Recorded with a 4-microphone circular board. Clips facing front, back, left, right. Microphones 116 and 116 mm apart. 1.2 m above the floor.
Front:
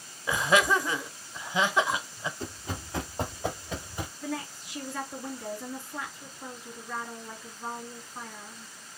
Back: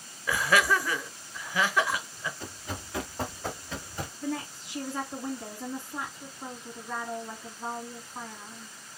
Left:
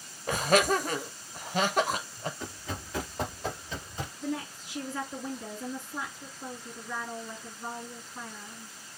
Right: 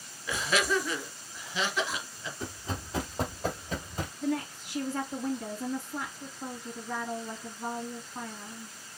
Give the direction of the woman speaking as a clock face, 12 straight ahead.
4 o'clock.